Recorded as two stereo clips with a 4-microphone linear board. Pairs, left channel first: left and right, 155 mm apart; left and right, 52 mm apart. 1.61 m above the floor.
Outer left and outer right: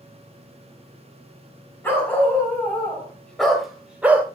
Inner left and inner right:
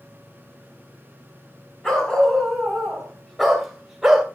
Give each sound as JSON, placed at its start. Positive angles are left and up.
{"t": 1.8, "sound": "a dog barking", "side_deg": 15, "distance_m": 5.0}